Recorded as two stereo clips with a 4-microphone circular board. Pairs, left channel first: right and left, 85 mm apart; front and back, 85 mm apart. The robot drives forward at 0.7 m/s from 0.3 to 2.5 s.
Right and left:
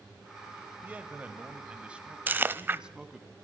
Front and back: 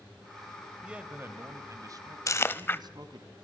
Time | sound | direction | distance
0.8 | a man speaking | 115° left | 1.0 m
2.3 | chewing | 30° left | 0.7 m